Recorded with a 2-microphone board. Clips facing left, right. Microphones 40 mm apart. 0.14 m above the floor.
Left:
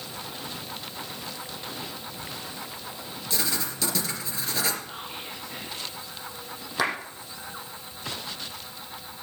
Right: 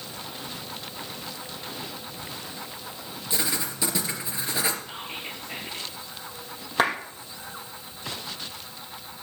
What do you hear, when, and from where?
3.3 s writing: 15° right (ahead or behind), 3 m
4.8 s whispering: 50° right (ahead or behind), 3.5 m
6.8 s a clap: 35° right (ahead or behind), 5.5 m